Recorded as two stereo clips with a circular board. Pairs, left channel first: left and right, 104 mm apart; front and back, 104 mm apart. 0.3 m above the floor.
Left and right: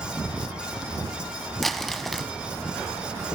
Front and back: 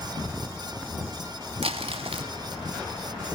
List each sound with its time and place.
1.6 s crumpling: straight behind, 0.8 m